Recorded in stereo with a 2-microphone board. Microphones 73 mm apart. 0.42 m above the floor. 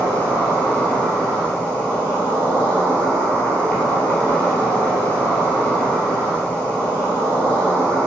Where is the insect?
15° left (ahead or behind), 1.5 m.